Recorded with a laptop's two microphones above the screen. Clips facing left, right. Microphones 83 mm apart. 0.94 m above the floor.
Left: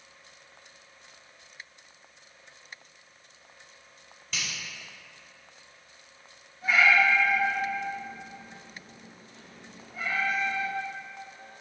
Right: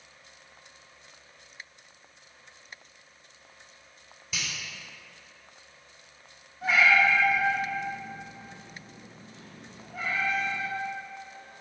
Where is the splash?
No splash in this recording.